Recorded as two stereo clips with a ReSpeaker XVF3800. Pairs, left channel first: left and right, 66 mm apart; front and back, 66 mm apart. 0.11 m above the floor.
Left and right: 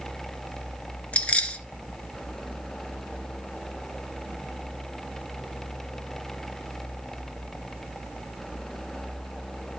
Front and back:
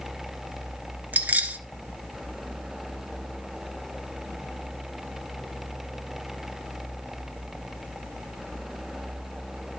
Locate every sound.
1.1 s keys jangling: 140° left, 0.9 m